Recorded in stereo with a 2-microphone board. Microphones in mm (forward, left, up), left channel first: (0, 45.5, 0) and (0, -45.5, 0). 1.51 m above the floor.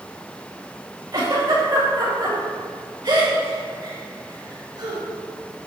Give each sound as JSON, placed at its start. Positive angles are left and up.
{"t": 1.1, "sound": "a giggle", "side_deg": -50, "distance_m": 2.0}